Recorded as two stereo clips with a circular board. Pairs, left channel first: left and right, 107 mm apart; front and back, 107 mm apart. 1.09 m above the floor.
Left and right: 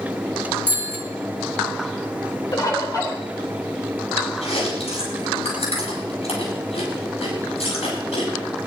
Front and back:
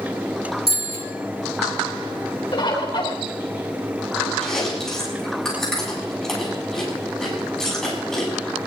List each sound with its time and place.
0.7 s a bicycle bell: 160° right, 9 m
2.5 s a bird: 40° left, 4 m
4.4 s chewing: 85° left, 8 m